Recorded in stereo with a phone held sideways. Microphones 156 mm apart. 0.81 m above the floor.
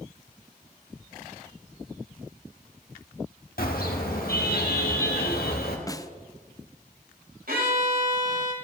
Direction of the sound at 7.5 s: 70° right (ahead or behind).